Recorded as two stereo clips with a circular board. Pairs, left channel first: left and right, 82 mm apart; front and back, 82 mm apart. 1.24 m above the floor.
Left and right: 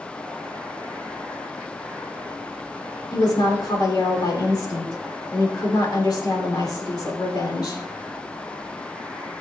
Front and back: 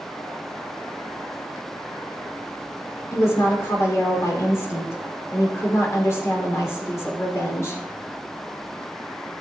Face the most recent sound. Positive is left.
turn(degrees=55)